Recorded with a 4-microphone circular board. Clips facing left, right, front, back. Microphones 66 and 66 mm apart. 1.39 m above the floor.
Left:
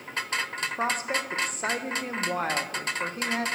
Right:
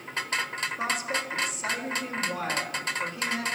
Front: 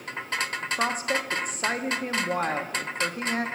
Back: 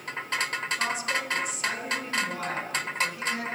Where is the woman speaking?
45° left, 1.0 m.